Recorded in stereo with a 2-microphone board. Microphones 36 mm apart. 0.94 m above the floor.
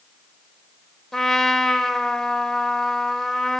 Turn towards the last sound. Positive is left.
turn(degrees=15)  # may be behind; listen again after turning